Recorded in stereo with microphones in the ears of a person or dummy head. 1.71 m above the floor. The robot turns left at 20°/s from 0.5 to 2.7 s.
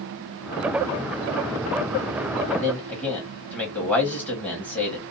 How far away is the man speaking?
About 1.5 m.